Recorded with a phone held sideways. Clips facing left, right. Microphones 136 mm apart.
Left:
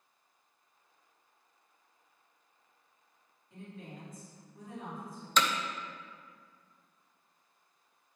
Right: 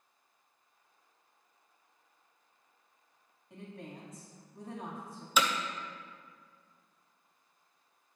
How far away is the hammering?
About 0.7 m.